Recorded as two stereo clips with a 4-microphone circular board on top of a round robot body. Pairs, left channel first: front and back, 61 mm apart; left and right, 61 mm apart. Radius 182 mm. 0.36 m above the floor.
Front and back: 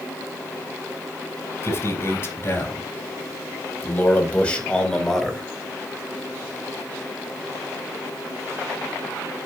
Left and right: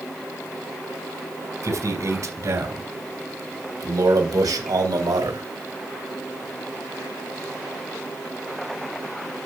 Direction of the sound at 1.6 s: 50° right.